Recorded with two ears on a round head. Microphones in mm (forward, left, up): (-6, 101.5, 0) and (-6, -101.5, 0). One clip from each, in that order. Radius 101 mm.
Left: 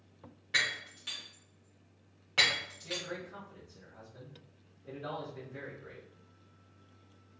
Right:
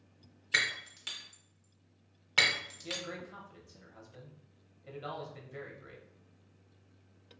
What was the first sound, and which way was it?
Breaking glass, 35° right (ahead or behind).